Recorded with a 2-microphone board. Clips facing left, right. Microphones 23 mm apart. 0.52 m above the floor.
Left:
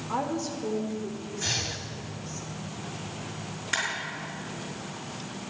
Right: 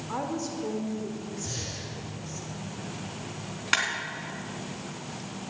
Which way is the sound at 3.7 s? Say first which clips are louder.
Right 4 dB; 30° right (ahead or behind).